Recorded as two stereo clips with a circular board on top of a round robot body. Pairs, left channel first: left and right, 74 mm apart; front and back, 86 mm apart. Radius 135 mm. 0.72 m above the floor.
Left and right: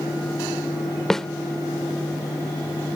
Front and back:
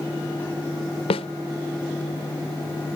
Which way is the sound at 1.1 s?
5° left.